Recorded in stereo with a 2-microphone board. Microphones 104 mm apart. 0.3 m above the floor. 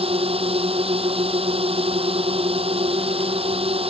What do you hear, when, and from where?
0.0 s a drone: 70° right (ahead or behind)